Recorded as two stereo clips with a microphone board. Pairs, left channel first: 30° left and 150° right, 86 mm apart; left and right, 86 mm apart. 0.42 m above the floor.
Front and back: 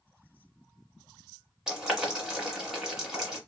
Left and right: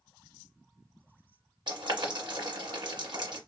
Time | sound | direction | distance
1.7 | boiling | 65° right | 1.7 m